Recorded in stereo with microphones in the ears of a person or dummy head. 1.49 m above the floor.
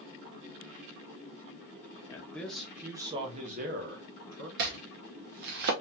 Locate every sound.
2.1 s a man speaking: 15° left (ahead or behind), 1.1 m; by 4.5 s 70° right (ahead or behind), 1.4 m
4.6 s chopping: 55° right (ahead or behind), 0.7 m